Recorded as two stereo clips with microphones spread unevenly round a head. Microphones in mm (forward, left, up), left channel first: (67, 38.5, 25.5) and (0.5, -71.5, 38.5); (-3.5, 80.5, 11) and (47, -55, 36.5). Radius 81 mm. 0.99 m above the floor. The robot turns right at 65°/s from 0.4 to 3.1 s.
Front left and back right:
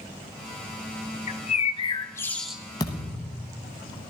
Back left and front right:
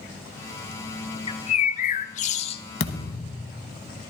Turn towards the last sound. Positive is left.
turn(degrees=145)